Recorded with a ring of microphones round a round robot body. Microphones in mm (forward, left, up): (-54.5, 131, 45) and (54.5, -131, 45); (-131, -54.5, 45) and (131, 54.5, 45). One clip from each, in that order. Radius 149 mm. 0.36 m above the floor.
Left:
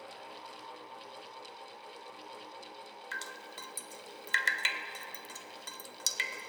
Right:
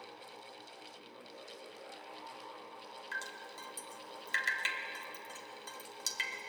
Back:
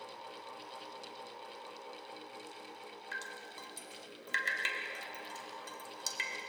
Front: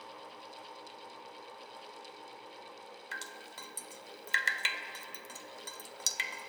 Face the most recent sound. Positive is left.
turn(degrees=55)